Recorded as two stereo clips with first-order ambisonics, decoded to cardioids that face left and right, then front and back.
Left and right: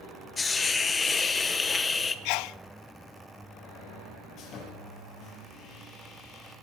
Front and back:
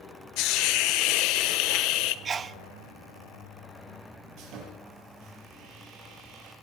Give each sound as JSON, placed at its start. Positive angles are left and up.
{"t": 0.4, "sound": "a hiss", "azimuth_deg": 20, "distance_m": 0.8}
{"t": 2.2, "sound": "a sneeze", "azimuth_deg": 110, "distance_m": 0.6}
{"t": 4.4, "sound": "sawing", "azimuth_deg": 145, "distance_m": 6.5}